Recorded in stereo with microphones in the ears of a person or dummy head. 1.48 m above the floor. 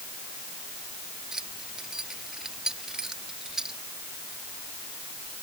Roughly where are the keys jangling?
Centre.